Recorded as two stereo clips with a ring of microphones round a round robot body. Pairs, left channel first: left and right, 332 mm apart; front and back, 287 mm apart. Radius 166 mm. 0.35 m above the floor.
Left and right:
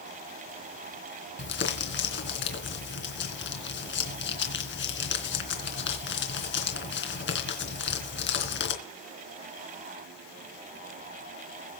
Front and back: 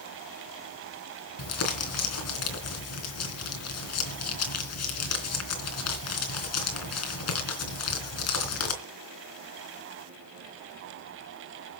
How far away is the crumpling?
About 3.5 m.